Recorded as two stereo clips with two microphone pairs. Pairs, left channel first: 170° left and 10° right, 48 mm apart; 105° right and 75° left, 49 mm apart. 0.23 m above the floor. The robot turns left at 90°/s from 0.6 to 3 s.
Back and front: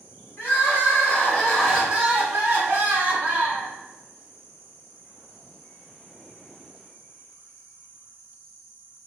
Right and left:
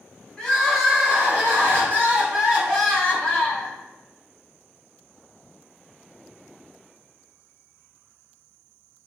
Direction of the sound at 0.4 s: Straight behind.